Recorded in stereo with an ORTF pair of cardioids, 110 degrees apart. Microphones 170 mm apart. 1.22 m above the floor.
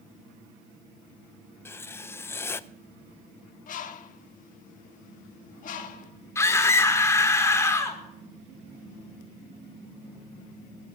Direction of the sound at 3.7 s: 55° left.